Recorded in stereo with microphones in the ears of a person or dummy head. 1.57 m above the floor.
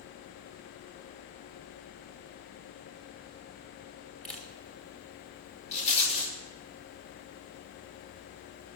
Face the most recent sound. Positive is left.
turn(degrees=35)  # may be behind; listen again after turning